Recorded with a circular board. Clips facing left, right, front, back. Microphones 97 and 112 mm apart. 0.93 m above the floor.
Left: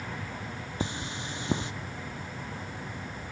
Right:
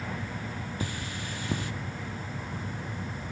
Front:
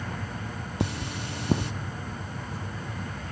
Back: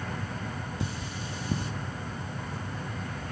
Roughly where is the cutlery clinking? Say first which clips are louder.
Left 5 dB, front 4 dB; ahead left.